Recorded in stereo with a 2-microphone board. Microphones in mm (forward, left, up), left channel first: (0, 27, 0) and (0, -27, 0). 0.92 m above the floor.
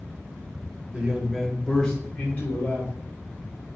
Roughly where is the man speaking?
Right.